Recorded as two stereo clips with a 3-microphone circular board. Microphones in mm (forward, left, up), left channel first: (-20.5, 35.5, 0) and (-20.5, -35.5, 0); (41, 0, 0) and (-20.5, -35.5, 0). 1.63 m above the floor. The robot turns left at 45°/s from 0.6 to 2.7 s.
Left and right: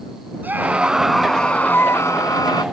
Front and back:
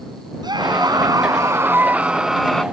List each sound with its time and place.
0.4 s a scream: 155° right; by 2.6 s 110° left